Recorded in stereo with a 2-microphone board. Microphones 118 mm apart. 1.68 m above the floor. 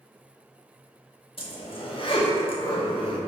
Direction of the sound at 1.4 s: 50° left (ahead or behind).